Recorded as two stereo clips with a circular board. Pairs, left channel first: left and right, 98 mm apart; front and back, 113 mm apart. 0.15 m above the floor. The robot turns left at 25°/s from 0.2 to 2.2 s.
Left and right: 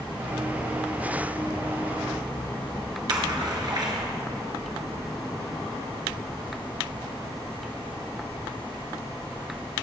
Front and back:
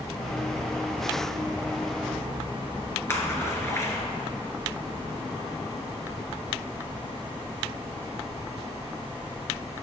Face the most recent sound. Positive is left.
turn(degrees=-60)